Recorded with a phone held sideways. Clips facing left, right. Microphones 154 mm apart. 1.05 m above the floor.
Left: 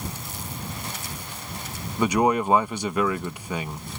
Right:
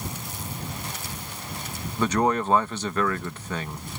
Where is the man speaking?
15° left (ahead or behind).